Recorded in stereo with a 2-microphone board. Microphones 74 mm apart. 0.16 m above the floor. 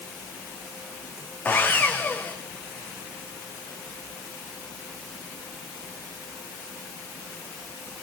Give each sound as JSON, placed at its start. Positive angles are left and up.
{"t": 1.4, "sound": "sawing", "side_deg": 25, "distance_m": 1.5}